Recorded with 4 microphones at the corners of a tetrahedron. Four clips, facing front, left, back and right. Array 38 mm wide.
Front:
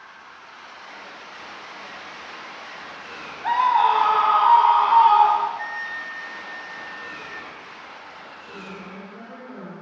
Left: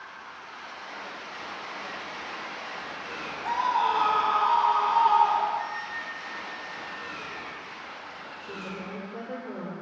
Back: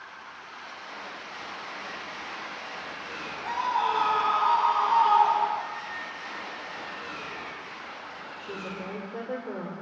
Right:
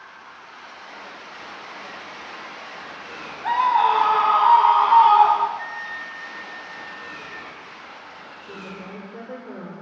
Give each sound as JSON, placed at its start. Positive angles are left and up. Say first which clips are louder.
{"t": 3.4, "sound": "a scream", "louder": "right 7 dB, front 9 dB", "azimuth_deg": -35, "distance_m": 1.6}
{"t": 5.6, "sound": "a flute", "louder": "right 2 dB, front 5 dB", "azimuth_deg": -10, "distance_m": 3.5}
{"t": 8.4, "sound": "a woman speaking", "louder": "even, back 2 dB", "azimuth_deg": -175, "distance_m": 9.0}